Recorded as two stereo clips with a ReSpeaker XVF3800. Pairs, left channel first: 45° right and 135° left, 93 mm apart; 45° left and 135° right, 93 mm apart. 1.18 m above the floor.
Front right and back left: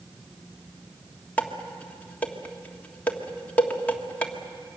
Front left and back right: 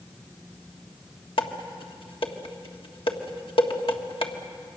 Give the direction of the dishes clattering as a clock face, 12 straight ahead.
11 o'clock.